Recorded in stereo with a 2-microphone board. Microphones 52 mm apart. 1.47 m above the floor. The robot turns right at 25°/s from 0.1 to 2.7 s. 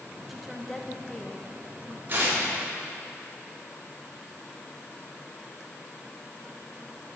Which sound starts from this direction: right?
Tearing paper, at 2.1 s.